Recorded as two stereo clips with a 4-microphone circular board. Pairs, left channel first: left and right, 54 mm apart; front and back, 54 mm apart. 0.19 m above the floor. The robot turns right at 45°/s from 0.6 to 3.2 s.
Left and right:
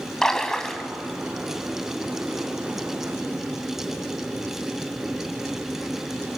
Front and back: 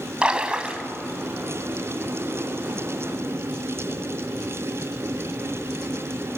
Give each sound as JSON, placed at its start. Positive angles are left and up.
{"t": 0.2, "sound": "a splash", "azimuth_deg": 150, "distance_m": 1.6}